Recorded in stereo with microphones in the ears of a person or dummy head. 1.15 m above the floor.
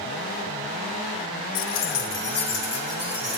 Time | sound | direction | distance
1.6 | keys jangling | 70° left (ahead or behind) | 0.6 m